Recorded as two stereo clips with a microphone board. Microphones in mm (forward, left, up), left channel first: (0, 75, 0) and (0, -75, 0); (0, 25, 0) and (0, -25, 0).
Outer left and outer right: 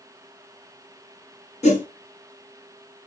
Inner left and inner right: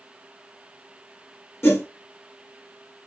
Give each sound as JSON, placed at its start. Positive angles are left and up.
{"t": 1.6, "sound": "a whoosh", "side_deg": 50, "distance_m": 1.7}